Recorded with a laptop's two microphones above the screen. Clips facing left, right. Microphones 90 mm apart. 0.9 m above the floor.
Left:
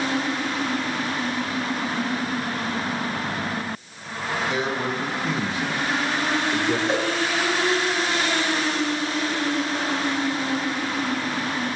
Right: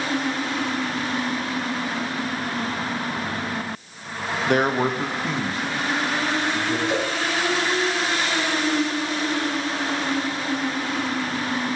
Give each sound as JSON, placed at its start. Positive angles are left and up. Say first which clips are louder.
{"t": 4.5, "sound": "a man speaking", "louder": "right 8 dB", "side_deg": -60, "distance_m": 1.1}
{"t": 6.9, "sound": "a whoosh", "louder": "even", "side_deg": 35, "distance_m": 2.0}